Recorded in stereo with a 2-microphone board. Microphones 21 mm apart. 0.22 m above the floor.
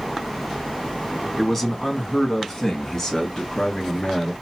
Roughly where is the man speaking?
Centre.